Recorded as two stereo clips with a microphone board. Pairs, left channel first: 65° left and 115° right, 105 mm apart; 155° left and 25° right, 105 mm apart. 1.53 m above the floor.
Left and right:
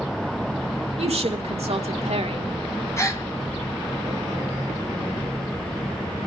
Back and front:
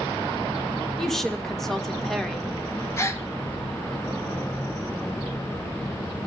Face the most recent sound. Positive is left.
turn(degrees=110)